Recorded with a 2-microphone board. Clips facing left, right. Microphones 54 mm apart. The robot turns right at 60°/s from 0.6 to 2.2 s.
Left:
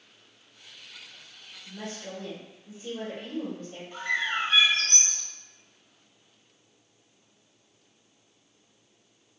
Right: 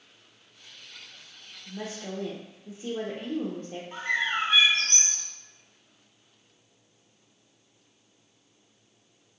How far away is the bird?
About 1.0 m.